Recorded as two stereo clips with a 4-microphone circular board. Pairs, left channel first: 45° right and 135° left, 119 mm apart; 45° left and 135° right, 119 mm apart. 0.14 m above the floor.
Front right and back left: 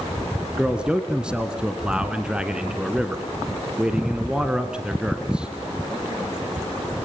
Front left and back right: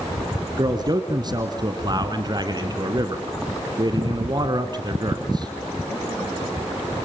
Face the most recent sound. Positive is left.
turn(degrees=-145)